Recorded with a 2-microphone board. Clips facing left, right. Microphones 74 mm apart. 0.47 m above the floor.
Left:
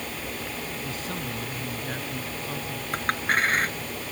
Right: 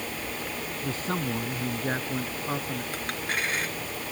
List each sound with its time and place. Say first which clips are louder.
0.8 s a man speaking: right 3 dB; 45° right (ahead or behind); by 2.8 s 35° right (ahead or behind)
2.9 s a clink: left 10 dB; 50° left (ahead or behind)